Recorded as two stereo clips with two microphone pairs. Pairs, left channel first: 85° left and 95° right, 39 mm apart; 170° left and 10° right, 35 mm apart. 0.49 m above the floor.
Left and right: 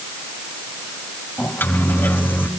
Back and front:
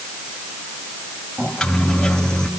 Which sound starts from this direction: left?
A microwave, at 1.4 s.